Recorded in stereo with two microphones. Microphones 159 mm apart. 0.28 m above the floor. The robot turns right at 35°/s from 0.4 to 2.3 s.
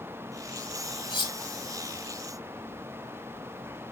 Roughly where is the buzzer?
I don't hear a buzzer.